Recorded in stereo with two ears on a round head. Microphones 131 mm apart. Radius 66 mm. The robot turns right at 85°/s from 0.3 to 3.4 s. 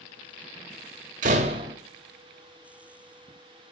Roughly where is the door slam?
Right.